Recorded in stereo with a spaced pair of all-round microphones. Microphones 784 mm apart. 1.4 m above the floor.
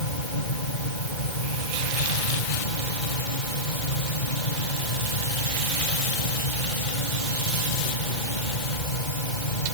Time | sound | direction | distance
0.0 | a fan | 80° left | ?